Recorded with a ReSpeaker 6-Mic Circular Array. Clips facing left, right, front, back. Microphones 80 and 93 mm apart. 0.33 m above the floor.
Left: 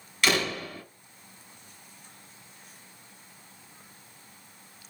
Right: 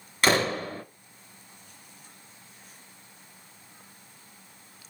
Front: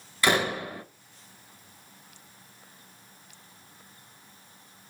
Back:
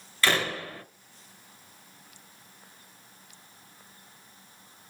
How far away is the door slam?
About 0.8 m.